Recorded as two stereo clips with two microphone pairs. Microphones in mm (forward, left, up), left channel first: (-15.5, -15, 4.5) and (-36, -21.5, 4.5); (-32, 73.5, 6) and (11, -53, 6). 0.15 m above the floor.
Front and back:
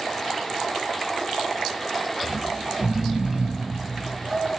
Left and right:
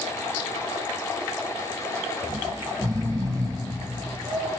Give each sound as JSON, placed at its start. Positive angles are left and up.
{"t": 2.2, "sound": "snoring", "azimuth_deg": -130, "distance_m": 4.0}